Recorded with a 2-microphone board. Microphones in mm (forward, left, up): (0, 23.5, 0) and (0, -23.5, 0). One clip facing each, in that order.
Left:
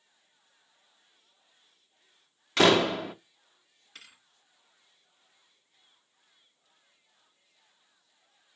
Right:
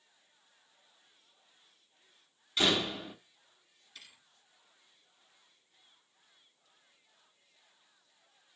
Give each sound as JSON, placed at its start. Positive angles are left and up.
{"t": 2.6, "sound": "a door slam", "side_deg": 80, "distance_m": 0.7}
{"t": 4.0, "sound": "a thud", "side_deg": 70, "distance_m": 2.5}